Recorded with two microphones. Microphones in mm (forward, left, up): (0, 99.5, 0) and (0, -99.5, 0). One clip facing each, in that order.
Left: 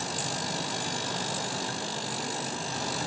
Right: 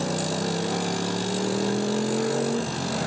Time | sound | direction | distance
0.0 | a motorcycle | 65° right (ahead or behind) | ?